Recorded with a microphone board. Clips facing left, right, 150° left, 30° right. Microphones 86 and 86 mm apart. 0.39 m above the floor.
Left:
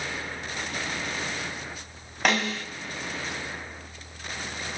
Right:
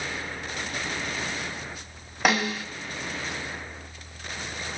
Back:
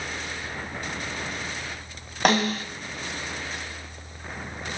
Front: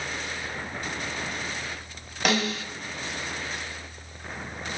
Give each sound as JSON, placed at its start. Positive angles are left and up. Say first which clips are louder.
{"t": 2.2, "sound": "a snare drum", "louder": "right 1 dB, back 4 dB", "azimuth_deg": -170, "distance_m": 1.1}